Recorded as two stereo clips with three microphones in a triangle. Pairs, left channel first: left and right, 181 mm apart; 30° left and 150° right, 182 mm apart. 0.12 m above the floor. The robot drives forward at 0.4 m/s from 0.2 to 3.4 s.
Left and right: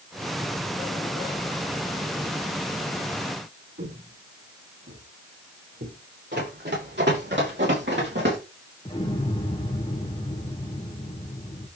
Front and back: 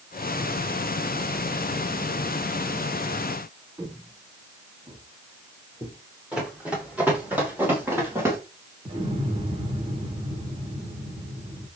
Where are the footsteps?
80° right, 5.5 m; by 6.0 s 85° right, 8.5 m.